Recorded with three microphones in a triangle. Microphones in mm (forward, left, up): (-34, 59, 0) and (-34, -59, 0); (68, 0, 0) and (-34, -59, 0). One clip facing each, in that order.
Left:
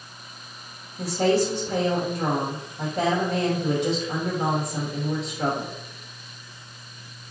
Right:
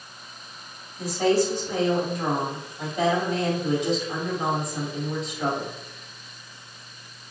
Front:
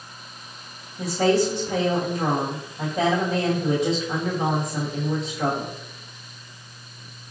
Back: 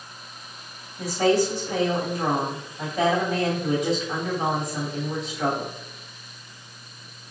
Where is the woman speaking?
80° left, 1.5 m.